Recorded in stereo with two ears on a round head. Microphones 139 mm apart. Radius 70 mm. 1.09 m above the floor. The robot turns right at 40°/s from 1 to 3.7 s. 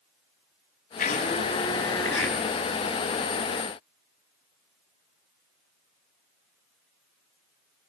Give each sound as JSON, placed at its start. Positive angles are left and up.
{"t": 1.0, "sound": "a blender", "azimuth_deg": 125, "distance_m": 8.0}